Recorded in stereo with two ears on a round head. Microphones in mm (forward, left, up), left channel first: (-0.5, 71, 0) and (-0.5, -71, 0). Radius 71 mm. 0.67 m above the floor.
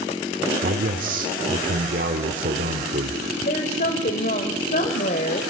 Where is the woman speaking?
50° left (ahead or behind), 2.5 m.